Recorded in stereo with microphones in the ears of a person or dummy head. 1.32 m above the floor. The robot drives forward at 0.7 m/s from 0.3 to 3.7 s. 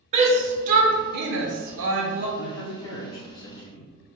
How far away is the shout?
About 1.3 m.